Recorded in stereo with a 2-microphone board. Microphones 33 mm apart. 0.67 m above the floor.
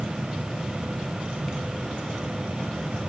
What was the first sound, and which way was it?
Only background noise.